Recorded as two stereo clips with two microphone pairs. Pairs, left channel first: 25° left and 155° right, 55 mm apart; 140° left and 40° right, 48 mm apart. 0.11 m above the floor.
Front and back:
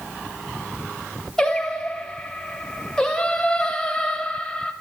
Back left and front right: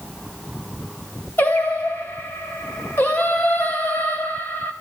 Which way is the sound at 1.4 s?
105° left.